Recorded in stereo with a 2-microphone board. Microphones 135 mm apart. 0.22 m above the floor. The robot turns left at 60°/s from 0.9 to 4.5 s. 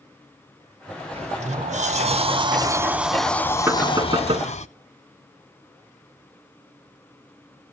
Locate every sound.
1.1 s a sliding door: 55° right, 0.6 m; by 4.7 s 100° left, 0.6 m
3.7 s knocking: 15° right, 1.7 m; by 4.5 s 65° right, 1.7 m